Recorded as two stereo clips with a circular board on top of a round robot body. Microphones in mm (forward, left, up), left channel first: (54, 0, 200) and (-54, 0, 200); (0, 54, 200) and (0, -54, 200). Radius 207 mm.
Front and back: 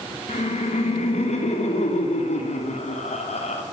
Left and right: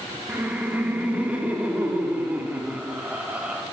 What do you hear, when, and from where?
0.3 s laughter: 15° right, 3 m